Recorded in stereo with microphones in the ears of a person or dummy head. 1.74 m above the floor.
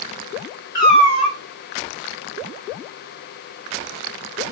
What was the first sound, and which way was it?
A cat meowing, 5° left (ahead or behind).